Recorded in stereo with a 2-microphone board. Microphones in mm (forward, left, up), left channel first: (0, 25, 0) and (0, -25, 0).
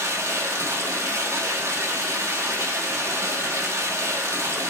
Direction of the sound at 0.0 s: 70° right (ahead or behind).